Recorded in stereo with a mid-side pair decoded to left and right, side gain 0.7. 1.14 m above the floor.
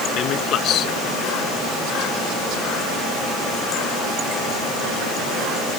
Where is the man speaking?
45° left.